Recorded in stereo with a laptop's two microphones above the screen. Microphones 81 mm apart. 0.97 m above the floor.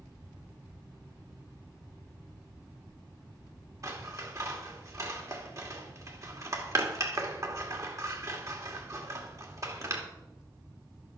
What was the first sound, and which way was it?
Scissors, 45° right (ahead or behind).